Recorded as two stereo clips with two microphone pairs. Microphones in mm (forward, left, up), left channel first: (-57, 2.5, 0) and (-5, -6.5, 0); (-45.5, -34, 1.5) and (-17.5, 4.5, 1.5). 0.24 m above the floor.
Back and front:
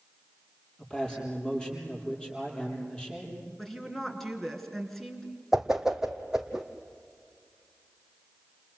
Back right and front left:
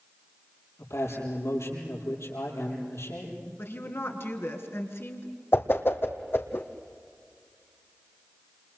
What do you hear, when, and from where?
0.8 s a man speaking: 120° right, 8 m
3.6 s a woman speaking: 105° right, 3.5 m
5.5 s a whoosh: 95° right, 1.7 m